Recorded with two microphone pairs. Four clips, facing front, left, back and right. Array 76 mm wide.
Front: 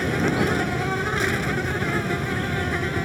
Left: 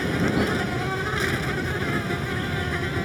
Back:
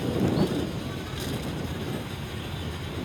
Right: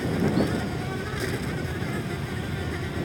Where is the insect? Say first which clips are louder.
Left 1 dB, front 3 dB; 25° left.